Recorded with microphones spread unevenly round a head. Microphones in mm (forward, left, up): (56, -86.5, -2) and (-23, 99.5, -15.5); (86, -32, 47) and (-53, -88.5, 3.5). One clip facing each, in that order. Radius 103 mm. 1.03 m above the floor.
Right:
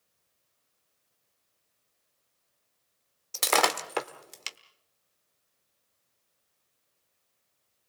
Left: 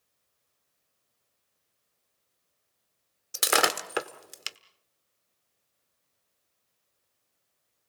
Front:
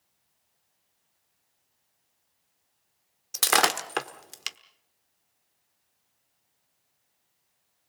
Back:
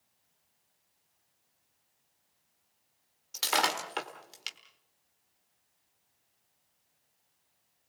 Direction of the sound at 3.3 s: 35° left.